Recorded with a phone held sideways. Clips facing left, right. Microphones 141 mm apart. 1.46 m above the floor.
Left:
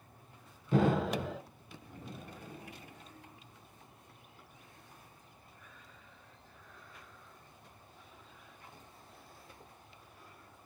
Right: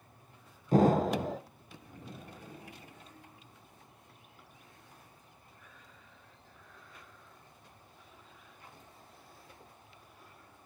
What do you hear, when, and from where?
0.7 s an explosion: 40° right (ahead or behind), 0.8 m